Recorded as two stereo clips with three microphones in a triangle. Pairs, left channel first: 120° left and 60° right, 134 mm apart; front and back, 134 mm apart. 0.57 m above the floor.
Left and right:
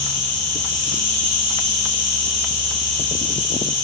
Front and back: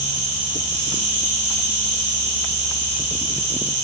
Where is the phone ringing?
No phone ringing in this recording.